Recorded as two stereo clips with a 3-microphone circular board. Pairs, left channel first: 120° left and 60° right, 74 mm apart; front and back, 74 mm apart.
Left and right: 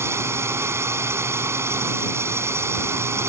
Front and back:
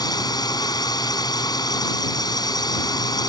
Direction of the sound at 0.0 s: 10° right.